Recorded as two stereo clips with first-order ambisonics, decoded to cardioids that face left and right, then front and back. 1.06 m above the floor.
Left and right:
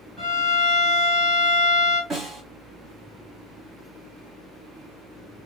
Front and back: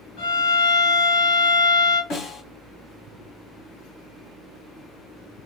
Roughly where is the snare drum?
Ahead.